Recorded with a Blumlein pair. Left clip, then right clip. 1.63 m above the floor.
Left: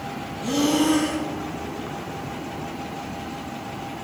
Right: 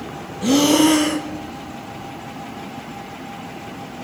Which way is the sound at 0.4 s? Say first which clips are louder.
Right 6 dB; 60° right.